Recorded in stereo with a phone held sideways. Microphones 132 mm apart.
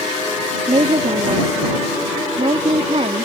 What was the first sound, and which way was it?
A woman speaking, 55° right (ahead or behind).